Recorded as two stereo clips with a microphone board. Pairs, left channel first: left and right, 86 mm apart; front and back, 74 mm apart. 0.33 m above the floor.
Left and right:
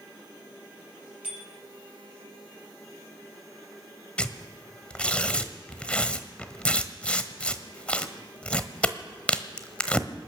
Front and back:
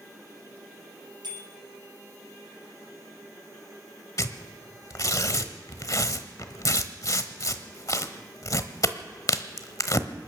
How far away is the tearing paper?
About 1.0 m.